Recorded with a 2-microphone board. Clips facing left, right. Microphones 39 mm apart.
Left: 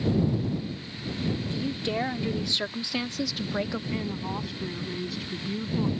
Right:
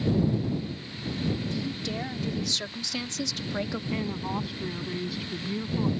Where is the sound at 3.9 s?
5° right (ahead or behind).